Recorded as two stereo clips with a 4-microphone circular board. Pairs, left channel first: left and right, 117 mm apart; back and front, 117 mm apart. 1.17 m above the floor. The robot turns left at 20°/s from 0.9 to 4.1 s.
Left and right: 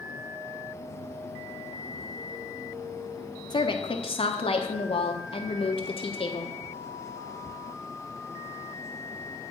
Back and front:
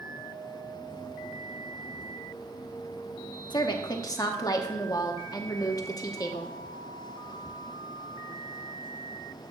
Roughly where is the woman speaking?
Behind left.